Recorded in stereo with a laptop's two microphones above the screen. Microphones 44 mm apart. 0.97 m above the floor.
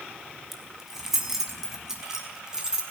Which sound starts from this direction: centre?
Keys jangling, at 0.5 s.